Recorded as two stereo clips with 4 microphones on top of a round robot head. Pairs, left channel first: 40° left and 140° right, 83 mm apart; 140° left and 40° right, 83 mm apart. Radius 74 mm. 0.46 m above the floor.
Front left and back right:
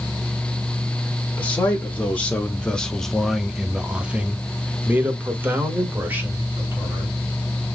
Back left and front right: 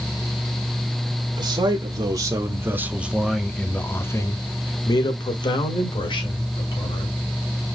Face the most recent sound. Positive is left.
turn(degrees=150)